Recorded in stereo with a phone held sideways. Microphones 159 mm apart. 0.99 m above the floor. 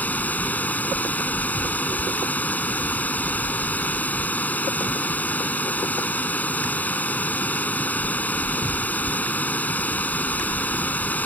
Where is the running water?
10° left (ahead or behind).